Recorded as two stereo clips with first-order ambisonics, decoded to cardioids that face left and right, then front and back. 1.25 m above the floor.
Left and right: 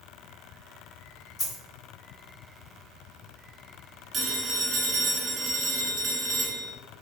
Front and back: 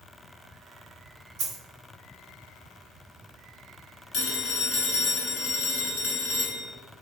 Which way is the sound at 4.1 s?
30° right.